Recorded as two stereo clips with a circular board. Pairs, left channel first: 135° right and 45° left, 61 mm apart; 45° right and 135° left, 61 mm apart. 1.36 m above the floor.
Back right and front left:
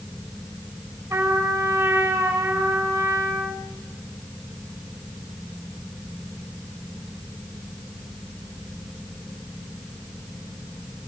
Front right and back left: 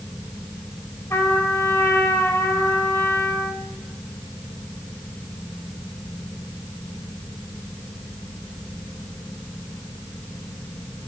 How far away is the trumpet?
About 4.5 m.